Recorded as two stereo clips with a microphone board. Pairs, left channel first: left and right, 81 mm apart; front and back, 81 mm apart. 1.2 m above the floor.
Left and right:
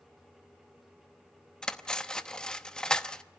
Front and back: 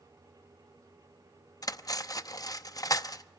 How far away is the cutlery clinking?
About 0.7 m.